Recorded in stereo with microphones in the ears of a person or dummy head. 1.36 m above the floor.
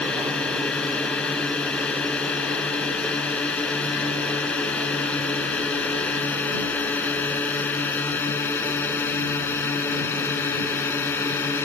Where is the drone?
5° left (ahead or behind); by 11.6 s 15° left (ahead or behind).